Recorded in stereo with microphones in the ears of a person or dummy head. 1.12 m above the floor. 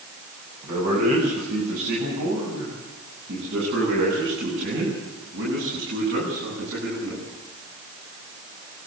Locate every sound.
0.6 s a man speaking: 55° right (ahead or behind), 7 m; by 7.2 s 80° right, 10.5 m